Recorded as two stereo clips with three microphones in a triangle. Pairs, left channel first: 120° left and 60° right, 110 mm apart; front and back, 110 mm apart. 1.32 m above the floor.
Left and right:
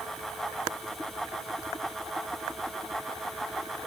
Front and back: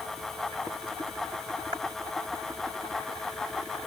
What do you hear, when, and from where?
Only background noise.